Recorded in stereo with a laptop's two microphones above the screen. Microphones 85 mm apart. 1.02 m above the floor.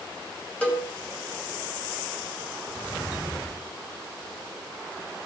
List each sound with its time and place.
0.6 s a cowbell: 15° left (ahead or behind), 2 m